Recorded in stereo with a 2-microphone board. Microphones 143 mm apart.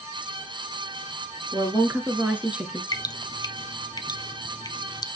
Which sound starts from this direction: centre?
A woman speaking, at 1.5 s.